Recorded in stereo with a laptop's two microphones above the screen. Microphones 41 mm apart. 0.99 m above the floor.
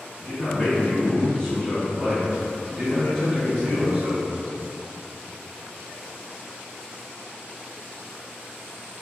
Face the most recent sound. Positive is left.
turn(degrees=-25)  # may be behind; listen again after turning